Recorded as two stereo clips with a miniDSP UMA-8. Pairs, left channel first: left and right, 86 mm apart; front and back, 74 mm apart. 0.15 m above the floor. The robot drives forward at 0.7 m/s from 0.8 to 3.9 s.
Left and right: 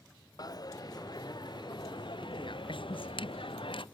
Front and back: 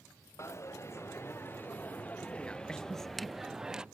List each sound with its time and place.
0.4 s a dropped coin: 50° left; by 3.9 s 100° left